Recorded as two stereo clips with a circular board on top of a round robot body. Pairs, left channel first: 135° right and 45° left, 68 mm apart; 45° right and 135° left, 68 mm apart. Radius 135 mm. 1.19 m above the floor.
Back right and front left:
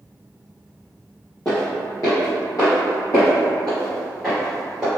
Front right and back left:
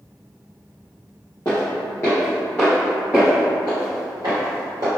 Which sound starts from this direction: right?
Footsteps, at 1.4 s.